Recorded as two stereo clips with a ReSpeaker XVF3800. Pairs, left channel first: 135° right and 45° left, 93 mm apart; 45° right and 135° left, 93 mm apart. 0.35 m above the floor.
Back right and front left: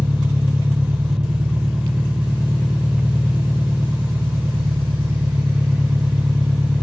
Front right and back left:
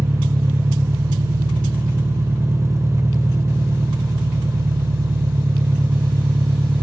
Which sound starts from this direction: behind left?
An engine running, at 0.0 s.